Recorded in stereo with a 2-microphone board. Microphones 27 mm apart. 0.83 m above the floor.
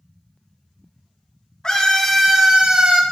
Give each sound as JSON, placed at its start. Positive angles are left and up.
{"t": 1.6, "sound": "a scream", "side_deg": 25, "distance_m": 0.8}